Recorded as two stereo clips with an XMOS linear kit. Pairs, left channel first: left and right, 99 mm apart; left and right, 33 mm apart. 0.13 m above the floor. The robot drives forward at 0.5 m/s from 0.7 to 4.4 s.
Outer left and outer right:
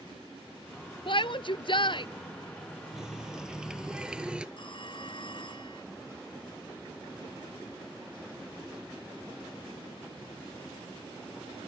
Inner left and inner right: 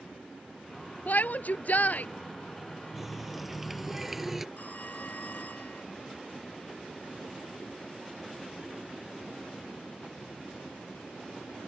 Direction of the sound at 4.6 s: 55° left (ahead or behind).